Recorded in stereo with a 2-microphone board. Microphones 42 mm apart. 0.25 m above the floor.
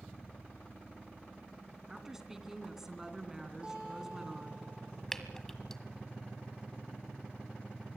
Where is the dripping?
10° left (ahead or behind), 1.4 m.